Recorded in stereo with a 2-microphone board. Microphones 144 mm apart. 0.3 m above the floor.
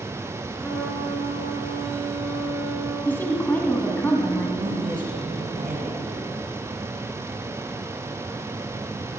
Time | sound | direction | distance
0.6 | a trumpet | 5° left (ahead or behind) | 4 m
3.0 | a woman speaking | 15° left (ahead or behind) | 2 m
4.6 | a woman speaking | 65° right (ahead or behind) | 5.5 m